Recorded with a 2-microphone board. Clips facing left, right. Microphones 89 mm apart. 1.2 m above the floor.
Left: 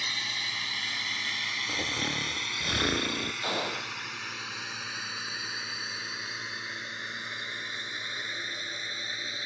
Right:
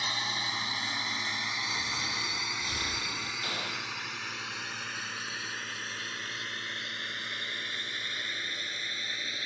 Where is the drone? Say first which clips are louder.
Right 3 dB; 30° right (ahead or behind); by 9.5 s 20° left (ahead or behind).